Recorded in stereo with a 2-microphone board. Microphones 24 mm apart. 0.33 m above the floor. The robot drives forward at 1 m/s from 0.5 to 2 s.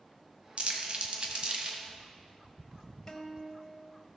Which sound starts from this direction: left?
A guitar, at 3.1 s.